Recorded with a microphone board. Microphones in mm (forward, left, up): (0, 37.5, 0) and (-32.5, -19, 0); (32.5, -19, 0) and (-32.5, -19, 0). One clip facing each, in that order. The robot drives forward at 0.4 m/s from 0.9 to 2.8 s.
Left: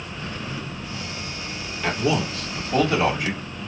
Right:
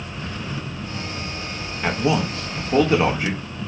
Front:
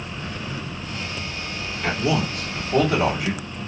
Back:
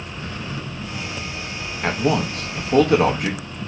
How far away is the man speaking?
About 0.8 m.